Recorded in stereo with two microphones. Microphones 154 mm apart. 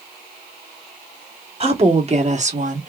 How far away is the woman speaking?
About 1.5 m.